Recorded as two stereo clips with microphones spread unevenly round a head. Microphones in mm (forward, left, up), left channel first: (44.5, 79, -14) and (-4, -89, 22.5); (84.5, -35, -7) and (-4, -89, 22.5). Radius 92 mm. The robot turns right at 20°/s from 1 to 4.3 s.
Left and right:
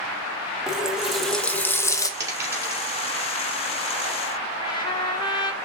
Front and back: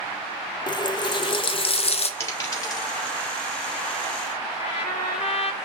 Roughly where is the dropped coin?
Ahead right.